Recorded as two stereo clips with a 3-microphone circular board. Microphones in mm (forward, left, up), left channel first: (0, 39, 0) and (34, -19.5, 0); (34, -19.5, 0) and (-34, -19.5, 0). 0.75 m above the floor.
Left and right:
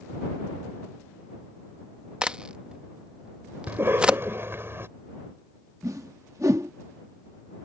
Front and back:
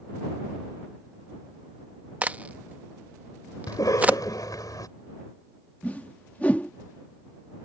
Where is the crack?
125° right.